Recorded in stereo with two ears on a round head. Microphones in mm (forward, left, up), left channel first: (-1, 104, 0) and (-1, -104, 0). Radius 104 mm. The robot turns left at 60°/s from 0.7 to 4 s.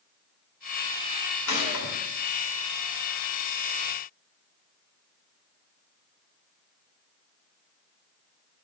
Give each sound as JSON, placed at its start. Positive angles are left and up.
{"t": 1.5, "sound": "a gunshot", "side_deg": 85, "distance_m": 2.0}